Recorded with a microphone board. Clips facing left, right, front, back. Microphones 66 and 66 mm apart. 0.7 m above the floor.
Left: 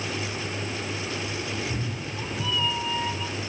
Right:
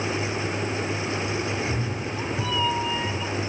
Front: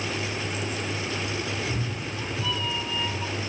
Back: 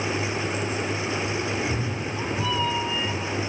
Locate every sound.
1.5 s a cat meowing: 160° right, 4 m; by 3.3 s 145° right, 4 m